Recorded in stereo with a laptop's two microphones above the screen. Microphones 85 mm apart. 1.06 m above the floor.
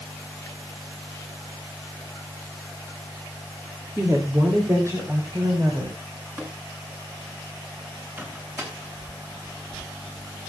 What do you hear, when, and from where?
4.0 s a woman speaking: 25° right (ahead or behind), 2.5 m; by 6.0 s 35° right (ahead or behind), 5.5 m
6.4 s tapping: 30° right (ahead or behind), 7.5 m
8.2 s a microwave: 25° right (ahead or behind), 6.5 m